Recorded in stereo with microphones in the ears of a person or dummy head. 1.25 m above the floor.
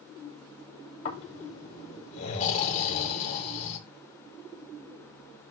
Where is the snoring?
40° left (ahead or behind), 5.5 m.